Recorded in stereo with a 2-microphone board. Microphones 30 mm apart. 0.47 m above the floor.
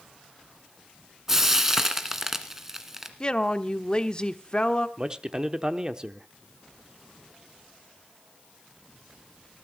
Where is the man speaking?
25° right (ahead or behind), 1.0 m.